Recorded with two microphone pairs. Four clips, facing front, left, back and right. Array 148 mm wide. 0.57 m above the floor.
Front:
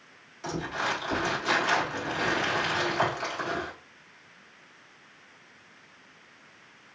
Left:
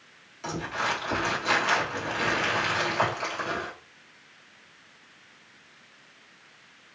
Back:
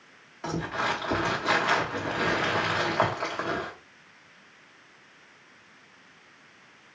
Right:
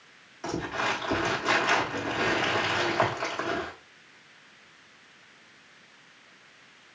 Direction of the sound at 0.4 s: 150° right.